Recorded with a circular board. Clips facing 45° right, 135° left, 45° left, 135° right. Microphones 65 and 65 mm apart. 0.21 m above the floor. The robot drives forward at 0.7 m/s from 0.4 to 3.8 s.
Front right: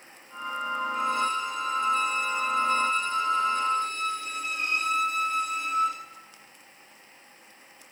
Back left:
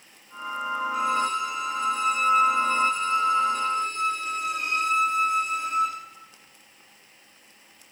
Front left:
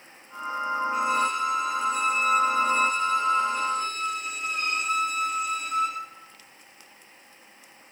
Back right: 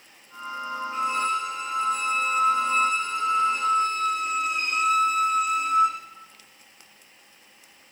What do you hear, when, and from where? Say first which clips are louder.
0.9 s a violin: back left 2 dB, back right 1 dB; 125° left, 8 m; by 6.0 s 135° left, 9.5 m